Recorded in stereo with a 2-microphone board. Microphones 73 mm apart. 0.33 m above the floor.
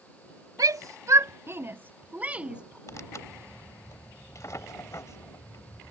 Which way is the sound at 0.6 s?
60° right (ahead or behind).